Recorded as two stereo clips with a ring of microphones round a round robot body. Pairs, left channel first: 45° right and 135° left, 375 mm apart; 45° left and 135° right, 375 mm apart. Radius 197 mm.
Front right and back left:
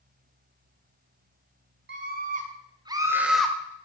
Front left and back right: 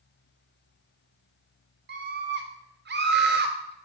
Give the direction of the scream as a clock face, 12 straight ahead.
6 o'clock.